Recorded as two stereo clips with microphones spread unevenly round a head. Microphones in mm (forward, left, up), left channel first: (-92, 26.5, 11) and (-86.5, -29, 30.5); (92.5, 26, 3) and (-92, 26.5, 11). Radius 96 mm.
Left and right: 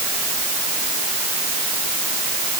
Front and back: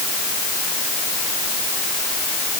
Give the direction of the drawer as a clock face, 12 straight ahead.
I don't hear a drawer.